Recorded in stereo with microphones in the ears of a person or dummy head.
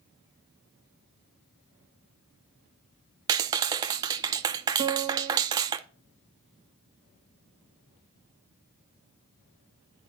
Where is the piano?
20° right (ahead or behind), 0.5 m.